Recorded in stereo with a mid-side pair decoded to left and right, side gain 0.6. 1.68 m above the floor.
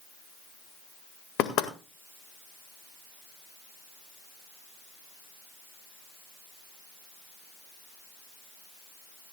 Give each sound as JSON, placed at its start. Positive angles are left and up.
{"t": 1.4, "sound": "knocking", "azimuth_deg": 70, "distance_m": 1.7}